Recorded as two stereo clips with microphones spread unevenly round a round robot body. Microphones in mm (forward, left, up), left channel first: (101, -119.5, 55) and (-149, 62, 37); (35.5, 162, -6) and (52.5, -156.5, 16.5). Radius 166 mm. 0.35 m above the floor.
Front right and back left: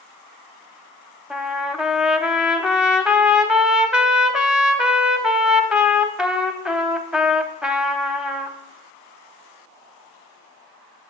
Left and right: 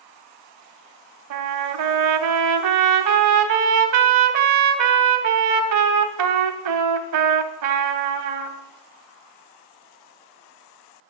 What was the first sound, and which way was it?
A trumpet, 130° right.